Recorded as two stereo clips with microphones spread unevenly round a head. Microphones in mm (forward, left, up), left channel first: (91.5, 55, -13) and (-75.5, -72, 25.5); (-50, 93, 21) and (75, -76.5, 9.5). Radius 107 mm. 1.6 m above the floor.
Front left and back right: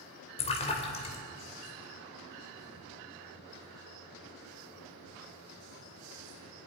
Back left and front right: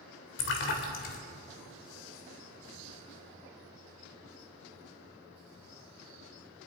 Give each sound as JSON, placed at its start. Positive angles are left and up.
{"t": 0.4, "sound": "a splash", "azimuth_deg": 105, "distance_m": 2.5}